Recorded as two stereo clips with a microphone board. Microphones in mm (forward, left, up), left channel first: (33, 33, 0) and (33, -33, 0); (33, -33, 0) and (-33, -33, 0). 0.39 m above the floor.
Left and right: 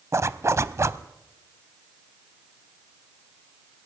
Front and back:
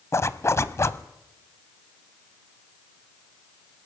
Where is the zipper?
45° right, 0.8 m.